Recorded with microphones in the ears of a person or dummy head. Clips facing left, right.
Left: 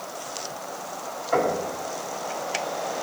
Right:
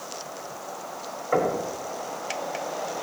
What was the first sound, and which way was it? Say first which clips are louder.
Knocking: even; 50° right (ahead or behind).